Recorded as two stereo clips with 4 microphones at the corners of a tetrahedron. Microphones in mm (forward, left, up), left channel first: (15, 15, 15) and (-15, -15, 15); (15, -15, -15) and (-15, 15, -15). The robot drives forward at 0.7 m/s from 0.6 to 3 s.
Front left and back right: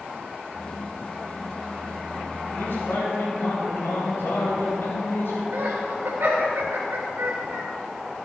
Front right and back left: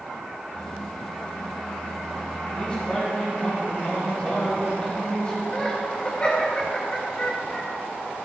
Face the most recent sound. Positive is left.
turn(degrees=-105)